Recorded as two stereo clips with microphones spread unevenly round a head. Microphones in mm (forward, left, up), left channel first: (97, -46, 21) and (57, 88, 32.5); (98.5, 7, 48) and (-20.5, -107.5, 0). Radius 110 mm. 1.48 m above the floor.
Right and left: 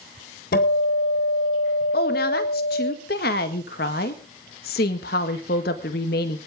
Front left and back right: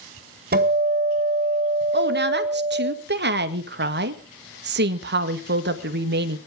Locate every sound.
0.5 s a guitar: 110° right, 4 m
1.9 s a woman speaking: 115° right, 1.7 m